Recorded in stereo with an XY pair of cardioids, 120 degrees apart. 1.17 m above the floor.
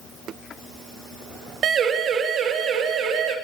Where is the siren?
50° right, 3 m; by 3.4 s 70° right, 4 m.